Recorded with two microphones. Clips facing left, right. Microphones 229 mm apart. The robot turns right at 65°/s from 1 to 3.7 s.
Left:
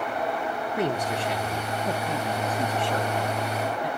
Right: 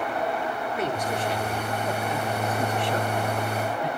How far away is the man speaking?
About 3 m.